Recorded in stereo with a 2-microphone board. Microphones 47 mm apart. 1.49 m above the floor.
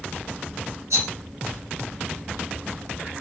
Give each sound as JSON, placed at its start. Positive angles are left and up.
{"t": 0.9, "sound": "a rattle", "side_deg": -75, "distance_m": 1.7}